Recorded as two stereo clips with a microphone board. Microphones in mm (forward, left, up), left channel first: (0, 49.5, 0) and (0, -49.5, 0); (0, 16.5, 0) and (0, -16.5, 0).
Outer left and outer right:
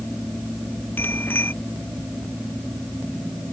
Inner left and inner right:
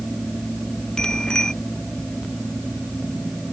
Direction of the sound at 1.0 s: 20° left (ahead or behind).